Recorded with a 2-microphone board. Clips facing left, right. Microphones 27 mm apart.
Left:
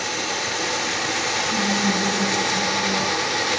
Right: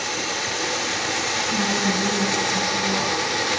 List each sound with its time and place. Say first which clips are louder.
1.5 s a woman speaking: left 1 dB; 70° right (ahead or behind), 7.5 m